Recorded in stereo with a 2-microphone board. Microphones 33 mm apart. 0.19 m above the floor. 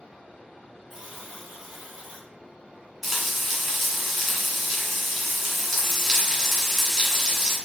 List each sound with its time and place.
0.9 s a buzzer: 5° left (ahead or behind), 2.0 m
3.0 s frying: 5° left (ahead or behind), 1.5 m